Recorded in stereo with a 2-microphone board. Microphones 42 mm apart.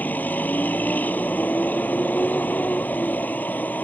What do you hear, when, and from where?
0.0 s a vehicle: 45° left (ahead or behind)